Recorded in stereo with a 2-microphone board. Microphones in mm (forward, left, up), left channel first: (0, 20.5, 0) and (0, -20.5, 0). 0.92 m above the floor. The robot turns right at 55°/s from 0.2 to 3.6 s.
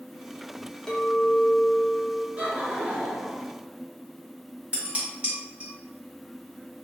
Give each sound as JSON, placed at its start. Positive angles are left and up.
{"t": 0.9, "sound": "a clink", "azimuth_deg": 160, "distance_m": 0.6}
{"t": 2.4, "sound": "laughter", "azimuth_deg": -75, "distance_m": 0.9}
{"t": 4.7, "sound": "dishes clattering", "side_deg": -30, "distance_m": 1.3}